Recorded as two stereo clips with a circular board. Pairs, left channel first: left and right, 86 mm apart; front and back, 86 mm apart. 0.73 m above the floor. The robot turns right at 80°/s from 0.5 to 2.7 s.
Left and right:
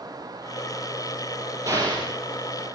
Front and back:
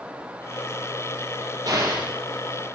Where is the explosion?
135° right, 4.5 m; by 2.1 s 100° right, 4.5 m.